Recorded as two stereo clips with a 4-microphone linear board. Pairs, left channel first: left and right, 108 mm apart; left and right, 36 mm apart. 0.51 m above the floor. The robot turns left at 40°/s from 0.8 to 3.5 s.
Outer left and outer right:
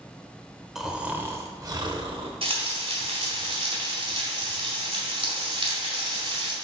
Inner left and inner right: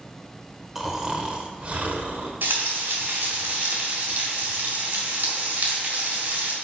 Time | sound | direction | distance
0.8 | snoring | 5° right | 0.8 m
2.4 | frying | 75° right | 1.9 m